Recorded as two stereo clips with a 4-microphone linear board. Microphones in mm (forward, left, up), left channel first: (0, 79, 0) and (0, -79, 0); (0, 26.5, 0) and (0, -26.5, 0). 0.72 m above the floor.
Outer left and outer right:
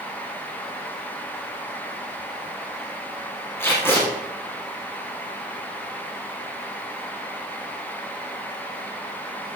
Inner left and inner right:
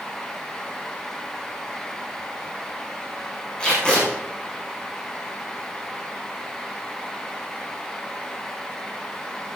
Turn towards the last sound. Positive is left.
turn(degrees=15)  # may be behind; listen again after turning